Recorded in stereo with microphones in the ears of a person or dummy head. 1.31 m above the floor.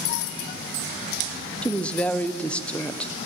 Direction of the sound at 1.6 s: 5° left (ahead or behind).